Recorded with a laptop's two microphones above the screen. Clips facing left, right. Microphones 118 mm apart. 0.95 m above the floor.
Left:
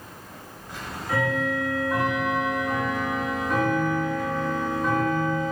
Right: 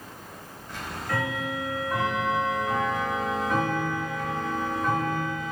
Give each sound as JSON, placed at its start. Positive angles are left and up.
{"t": 0.7, "sound": "ticking", "side_deg": 10, "distance_m": 1.6}